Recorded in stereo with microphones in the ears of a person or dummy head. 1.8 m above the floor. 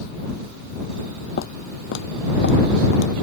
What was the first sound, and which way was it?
Footsteps, 60° left (ahead or behind).